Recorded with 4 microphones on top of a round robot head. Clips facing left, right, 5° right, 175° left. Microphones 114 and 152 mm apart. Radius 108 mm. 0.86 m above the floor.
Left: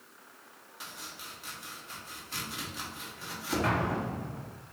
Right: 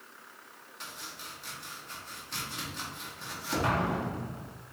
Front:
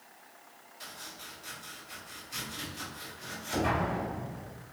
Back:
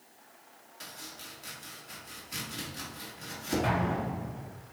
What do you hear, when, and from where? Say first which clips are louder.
0.8 s chopping: right 1 dB, back 1 dB; 175° left, 1.6 m
3.6 s an explosion: right 2 dB, front 1 dB; 160° right, 1.6 m